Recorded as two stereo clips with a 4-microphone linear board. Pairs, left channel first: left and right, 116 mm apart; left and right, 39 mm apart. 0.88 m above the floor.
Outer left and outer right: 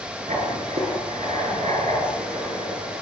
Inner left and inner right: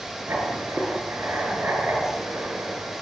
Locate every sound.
0.3 s writing: 85° right, 9 m